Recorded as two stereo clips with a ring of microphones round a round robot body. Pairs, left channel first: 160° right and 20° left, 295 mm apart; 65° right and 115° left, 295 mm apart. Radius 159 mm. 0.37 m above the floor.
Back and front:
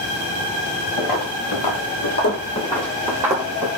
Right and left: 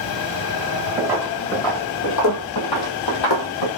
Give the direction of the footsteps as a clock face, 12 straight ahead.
6 o'clock.